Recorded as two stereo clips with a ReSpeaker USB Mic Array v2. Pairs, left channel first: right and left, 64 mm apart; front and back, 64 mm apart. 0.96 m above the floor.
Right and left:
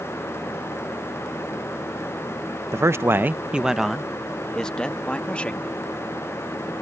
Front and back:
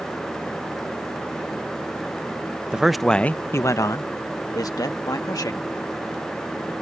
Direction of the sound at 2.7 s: 110° left.